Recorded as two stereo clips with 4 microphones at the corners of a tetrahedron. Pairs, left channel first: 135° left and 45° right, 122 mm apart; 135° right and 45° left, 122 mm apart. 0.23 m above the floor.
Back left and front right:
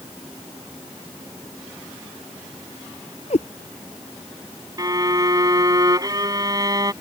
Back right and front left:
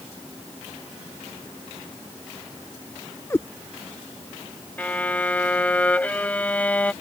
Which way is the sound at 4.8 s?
65° right.